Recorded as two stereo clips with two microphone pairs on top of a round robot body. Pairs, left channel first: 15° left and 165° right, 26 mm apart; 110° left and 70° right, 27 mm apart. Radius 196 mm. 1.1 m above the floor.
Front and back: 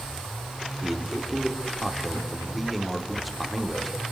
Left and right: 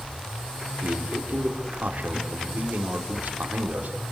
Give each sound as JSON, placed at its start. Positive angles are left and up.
{"t": 0.8, "sound": "a man speaking", "azimuth_deg": -75, "distance_m": 3.5}